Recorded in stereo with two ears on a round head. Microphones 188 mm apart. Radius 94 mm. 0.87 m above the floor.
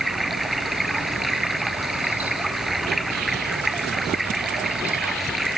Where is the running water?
Centre (ahead or behind).